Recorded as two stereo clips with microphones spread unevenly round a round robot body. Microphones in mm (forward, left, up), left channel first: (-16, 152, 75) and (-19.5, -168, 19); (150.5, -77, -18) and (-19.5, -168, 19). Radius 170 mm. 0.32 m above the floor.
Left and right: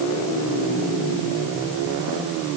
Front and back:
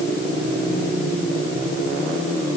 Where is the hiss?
No hiss in this recording.